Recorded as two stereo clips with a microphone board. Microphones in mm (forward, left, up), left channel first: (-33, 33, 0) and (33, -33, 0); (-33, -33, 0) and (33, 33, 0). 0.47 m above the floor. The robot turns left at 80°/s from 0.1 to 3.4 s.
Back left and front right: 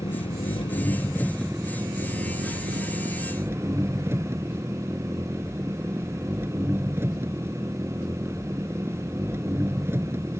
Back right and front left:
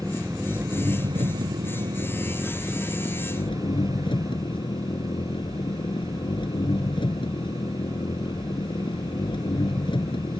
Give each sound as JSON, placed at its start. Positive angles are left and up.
{"t": 0.0, "sound": "an engine running", "azimuth_deg": 155}